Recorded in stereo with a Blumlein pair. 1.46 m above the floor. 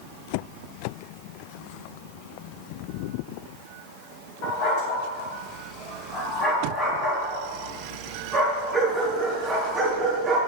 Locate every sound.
4.4 s a dog barking: 45° left, 3.5 m; by 10.4 s 10° right, 7.5 m